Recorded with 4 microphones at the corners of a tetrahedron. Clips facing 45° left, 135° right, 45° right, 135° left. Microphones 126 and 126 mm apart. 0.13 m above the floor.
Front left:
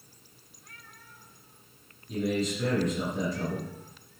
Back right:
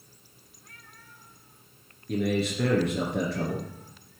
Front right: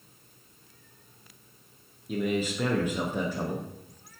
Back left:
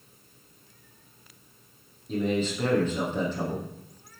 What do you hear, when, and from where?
2.1 s a man speaking: 125° right, 2.5 m